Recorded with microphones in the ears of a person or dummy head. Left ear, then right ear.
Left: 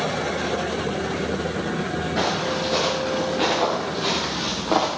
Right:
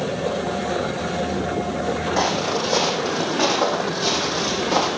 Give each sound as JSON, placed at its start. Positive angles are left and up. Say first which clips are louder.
{"t": 2.2, "sound": "footsteps", "louder": "right 1 dB", "side_deg": -25, "distance_m": 4.5}